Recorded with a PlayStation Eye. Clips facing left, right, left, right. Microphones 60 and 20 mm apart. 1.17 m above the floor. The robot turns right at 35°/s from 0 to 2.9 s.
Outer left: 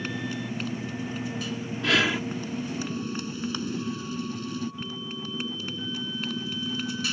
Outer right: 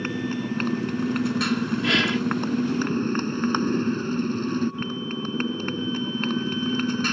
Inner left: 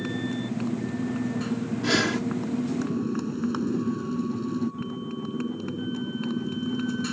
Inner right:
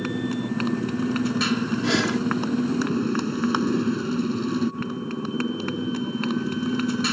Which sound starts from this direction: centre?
Breathing, at 1.8 s.